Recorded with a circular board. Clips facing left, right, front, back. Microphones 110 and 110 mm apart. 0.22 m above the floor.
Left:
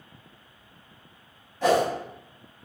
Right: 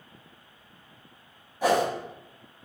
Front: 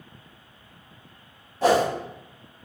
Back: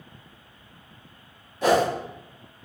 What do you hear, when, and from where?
1.6 s a whoosh: 20° right, 0.8 m